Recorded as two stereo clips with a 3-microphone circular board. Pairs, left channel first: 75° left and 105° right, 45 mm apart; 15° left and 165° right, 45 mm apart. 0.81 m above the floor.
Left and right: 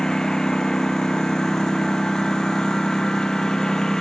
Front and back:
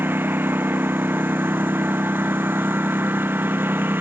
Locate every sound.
0.0 s a lawn mower: 150° left